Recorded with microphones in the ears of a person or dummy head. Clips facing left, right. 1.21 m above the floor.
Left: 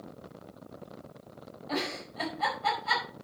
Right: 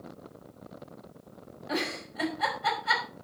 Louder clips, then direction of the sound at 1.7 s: Right 1 dB; 15° right (ahead or behind).